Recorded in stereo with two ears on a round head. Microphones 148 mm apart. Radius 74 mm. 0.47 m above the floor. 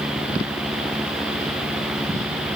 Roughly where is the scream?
I don't hear a scream.